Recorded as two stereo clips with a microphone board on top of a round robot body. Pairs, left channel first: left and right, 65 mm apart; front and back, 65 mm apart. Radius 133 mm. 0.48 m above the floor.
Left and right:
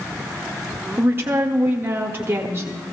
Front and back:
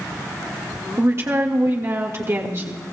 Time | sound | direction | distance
1.0 | a woman speaking | 140° right | 1.8 m